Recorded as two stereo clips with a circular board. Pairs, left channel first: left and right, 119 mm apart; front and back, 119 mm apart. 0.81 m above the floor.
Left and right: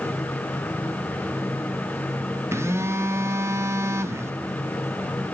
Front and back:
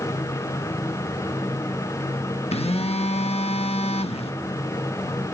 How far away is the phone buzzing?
About 1.1 m.